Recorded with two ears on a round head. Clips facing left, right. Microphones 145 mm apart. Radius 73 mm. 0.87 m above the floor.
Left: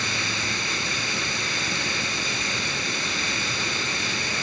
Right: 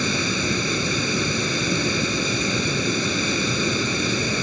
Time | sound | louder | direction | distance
0.0 | running water | right 8 dB | 85° right | ?